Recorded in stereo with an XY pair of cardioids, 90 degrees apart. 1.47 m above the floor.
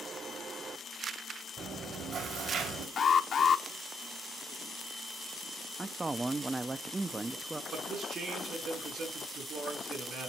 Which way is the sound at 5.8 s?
25° right.